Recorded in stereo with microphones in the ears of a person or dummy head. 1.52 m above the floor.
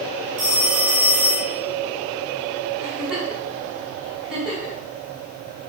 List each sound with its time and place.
0.4 s a phone ringing: 65° right (ahead or behind), 0.9 m
2.8 s a giggle: 5° right (ahead or behind), 2.5 m